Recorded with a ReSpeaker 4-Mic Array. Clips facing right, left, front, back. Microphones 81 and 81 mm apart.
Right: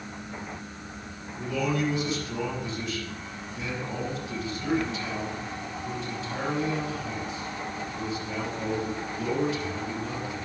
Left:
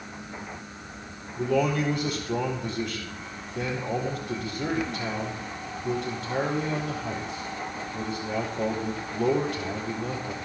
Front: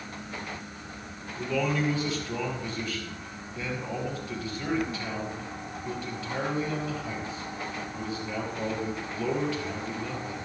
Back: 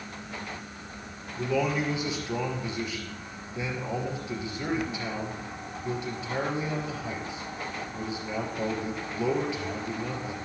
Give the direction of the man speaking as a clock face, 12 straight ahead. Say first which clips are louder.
Left 4 dB, back 1 dB; 9 o'clock.